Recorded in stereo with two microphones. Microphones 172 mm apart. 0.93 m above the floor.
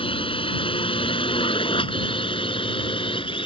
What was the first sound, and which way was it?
A drone, 30° left (ahead or behind).